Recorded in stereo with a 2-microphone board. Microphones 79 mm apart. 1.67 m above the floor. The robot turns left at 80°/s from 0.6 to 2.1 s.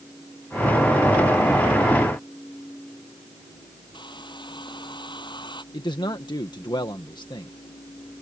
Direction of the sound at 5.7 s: 70° left (ahead or behind).